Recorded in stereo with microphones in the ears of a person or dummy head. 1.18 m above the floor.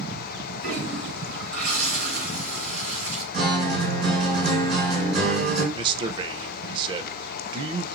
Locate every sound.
0.6 s a toilet flushing: 55° right (ahead or behind), 3 m
3.3 s a guitar: 60° right (ahead or behind), 3 m
5.7 s a man speaking: 30° right (ahead or behind), 0.5 m